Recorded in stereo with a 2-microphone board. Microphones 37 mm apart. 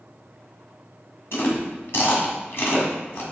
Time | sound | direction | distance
1.3 | chewing | 65° left (ahead or behind) | 1.7 m